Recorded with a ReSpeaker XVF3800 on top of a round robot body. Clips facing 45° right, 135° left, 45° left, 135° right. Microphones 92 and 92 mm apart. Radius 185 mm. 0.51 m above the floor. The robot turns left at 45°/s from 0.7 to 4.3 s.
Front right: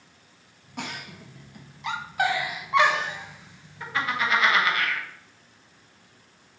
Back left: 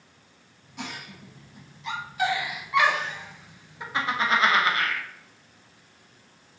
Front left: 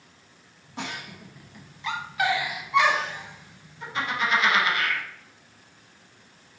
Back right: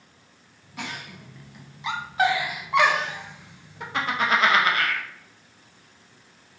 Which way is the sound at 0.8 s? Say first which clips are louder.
Front right 2 dB, front left 1 dB; 15° right.